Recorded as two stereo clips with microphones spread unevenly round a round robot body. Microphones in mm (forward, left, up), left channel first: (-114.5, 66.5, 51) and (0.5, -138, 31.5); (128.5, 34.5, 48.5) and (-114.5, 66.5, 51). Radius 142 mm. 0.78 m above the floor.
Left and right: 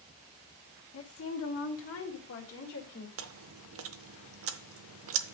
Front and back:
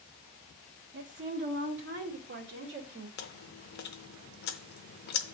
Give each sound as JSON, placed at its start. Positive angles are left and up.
{"t": 0.9, "sound": "a woman speaking", "azimuth_deg": 130, "distance_m": 1.1}
{"t": 3.2, "sound": "chewing", "azimuth_deg": -50, "distance_m": 0.6}